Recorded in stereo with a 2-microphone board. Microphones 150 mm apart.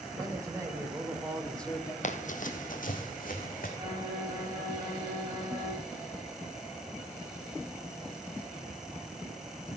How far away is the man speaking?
About 3.5 m.